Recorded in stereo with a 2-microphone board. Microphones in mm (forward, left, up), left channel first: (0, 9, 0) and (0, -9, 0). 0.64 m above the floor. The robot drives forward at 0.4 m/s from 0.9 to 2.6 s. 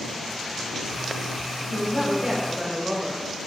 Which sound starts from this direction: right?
A woman speaking, at 1.7 s.